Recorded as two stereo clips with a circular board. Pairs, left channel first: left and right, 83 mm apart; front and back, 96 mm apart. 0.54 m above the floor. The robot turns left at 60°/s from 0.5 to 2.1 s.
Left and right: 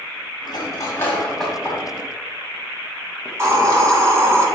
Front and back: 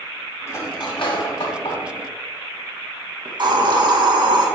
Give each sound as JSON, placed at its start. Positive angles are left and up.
{"t": 0.5, "sound": "cutlery clinking", "azimuth_deg": 60, "distance_m": 1.8}
{"t": 3.2, "sound": "a hiss", "azimuth_deg": -145, "distance_m": 1.5}